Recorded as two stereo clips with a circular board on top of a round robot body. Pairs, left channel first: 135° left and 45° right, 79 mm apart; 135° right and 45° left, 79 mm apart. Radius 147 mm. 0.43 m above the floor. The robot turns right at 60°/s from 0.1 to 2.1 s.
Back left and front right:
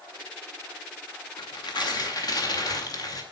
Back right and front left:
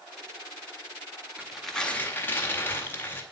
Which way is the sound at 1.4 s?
120° left.